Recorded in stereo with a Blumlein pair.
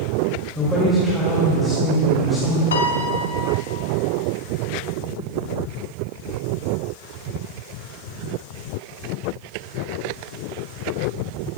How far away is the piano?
About 1.0 m.